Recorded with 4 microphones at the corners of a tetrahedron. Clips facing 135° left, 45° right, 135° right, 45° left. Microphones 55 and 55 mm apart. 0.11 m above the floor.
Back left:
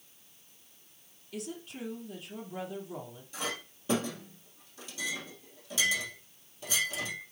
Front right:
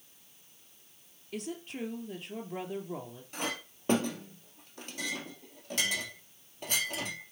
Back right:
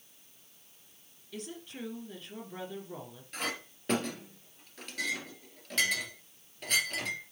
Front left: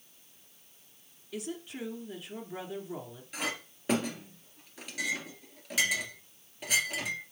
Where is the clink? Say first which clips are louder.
Front right 1 dB, front left 1 dB; 40° right, 1.9 m.